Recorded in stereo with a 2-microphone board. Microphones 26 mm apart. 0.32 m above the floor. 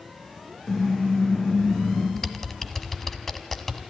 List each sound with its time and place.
0.7 s a car horn: 25° left (ahead or behind), 8.5 m
2.2 s typing on a keyboard: 10° left (ahead or behind), 1.4 m